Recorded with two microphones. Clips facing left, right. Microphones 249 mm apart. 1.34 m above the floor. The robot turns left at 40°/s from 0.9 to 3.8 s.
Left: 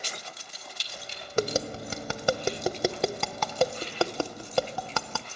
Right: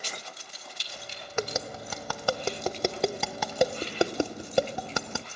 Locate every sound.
1.4 s tapping: 35° left (ahead or behind), 0.7 m; by 5.3 s 20° right (ahead or behind), 0.7 m